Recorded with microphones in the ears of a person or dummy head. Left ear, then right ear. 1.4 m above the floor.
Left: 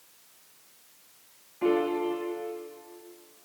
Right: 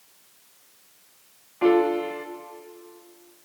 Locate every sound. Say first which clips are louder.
1.6 s a piano: right 6 dB; 40° right (ahead or behind), 0.9 m